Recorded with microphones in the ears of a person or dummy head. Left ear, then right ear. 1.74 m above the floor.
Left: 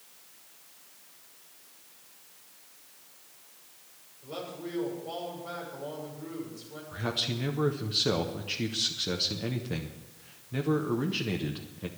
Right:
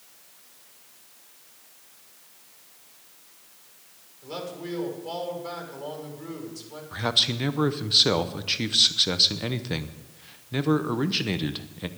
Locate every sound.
4.2 s a man speaking: 70° right (ahead or behind), 6 m
6.9 s a man speaking: 30° right (ahead or behind), 0.9 m